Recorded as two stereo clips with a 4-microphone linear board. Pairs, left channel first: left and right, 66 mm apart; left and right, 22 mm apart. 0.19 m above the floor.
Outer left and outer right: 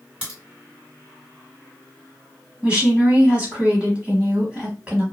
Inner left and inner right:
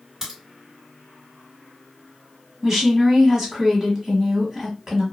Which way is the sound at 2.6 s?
20° right (ahead or behind).